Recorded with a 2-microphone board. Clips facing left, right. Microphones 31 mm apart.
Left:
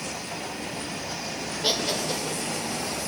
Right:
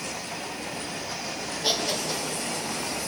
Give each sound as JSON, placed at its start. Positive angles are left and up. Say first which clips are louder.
{"t": 1.6, "sound": "laughter", "louder": "left 1 dB", "side_deg": 25, "distance_m": 2.5}